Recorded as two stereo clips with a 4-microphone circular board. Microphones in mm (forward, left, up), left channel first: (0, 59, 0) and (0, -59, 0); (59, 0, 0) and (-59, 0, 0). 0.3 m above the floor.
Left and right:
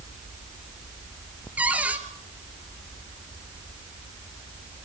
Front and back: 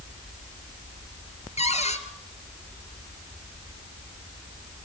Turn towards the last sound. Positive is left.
turn(degrees=-15)